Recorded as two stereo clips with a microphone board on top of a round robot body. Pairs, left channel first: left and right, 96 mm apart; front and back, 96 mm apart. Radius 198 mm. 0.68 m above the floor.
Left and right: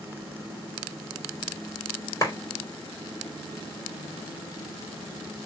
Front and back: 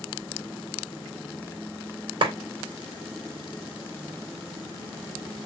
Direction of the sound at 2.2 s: 150° left.